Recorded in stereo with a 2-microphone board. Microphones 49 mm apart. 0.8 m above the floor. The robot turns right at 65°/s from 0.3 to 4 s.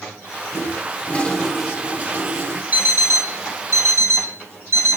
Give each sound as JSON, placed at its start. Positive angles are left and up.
{"t": 0.5, "sound": "a toilet flushing", "azimuth_deg": 115, "distance_m": 1.3}
{"t": 2.7, "sound": "an alarm clock", "azimuth_deg": -145, "distance_m": 2.0}